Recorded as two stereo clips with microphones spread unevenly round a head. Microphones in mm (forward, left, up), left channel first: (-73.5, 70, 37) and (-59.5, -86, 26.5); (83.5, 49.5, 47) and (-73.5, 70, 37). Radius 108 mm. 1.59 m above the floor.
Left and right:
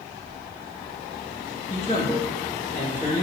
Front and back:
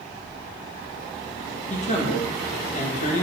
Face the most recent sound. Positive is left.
turn(degrees=35)